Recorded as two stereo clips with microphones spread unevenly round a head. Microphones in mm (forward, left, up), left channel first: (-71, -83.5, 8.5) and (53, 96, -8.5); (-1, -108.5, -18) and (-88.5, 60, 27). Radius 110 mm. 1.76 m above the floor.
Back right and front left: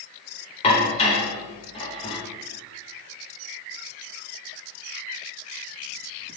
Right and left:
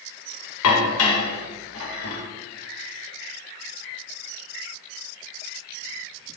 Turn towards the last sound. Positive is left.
turn(degrees=-60)